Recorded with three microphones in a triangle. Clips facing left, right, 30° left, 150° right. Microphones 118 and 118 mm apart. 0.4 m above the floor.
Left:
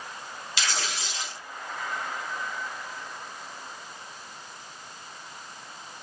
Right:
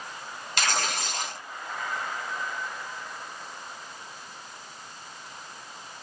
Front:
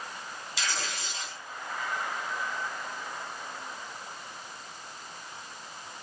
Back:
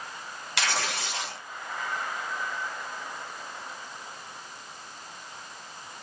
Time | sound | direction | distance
0.6 | tearing paper | 130° right | 0.7 m